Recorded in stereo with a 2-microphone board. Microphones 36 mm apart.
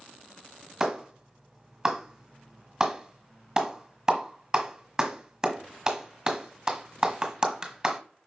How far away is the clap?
About 1.4 m.